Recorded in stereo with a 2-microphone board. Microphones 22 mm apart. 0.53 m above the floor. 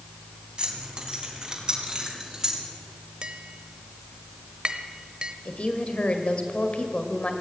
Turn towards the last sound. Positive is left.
turn(degrees=55)  # may be behind; listen again after turning